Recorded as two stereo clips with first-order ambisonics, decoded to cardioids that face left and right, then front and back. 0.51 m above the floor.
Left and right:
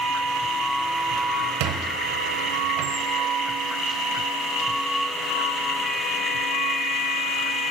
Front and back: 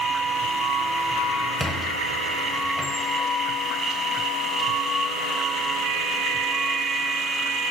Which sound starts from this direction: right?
A squeak, at 1.6 s.